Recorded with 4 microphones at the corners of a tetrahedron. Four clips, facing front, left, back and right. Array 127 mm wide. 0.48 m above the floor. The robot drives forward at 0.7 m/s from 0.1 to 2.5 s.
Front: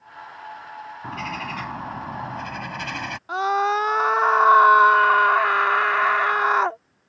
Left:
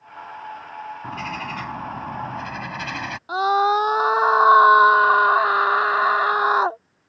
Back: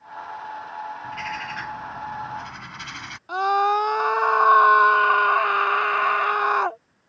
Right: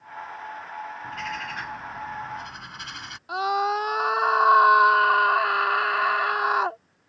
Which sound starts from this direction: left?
A scream, at 3.3 s.